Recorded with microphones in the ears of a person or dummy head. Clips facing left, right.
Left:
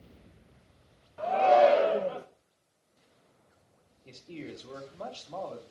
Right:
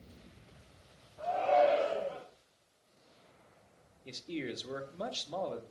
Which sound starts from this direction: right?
A man speaking, at 4.0 s.